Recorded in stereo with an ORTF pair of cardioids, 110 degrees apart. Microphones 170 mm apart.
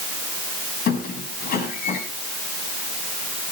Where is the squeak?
60° left, 5.5 m.